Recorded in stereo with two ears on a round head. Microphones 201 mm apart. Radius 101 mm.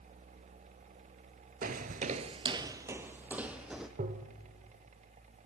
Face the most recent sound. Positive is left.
turn(degrees=-35)  # may be behind; listen again after turning